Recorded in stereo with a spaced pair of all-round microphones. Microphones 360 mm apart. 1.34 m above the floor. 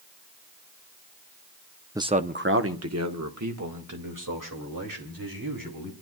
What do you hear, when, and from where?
1.9 s a man speaking: 10° right (ahead or behind), 0.7 m; by 5.9 s 60° right (ahead or behind), 4 m